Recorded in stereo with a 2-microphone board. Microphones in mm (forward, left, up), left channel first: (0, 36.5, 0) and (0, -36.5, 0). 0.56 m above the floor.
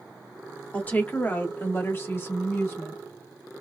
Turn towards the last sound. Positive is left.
turn(degrees=35)  # may be behind; listen again after turning